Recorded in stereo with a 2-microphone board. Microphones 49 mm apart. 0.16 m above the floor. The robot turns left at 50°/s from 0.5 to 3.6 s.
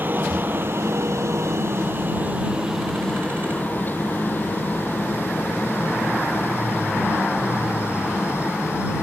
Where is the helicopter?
45° right (ahead or behind); by 9.0 s 60° left (ahead or behind).